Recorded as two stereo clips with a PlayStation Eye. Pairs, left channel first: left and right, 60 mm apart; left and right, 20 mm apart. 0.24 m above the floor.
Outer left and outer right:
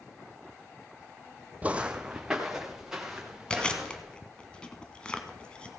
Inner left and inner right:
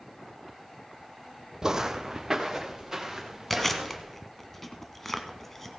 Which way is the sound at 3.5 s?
15° left (ahead or behind).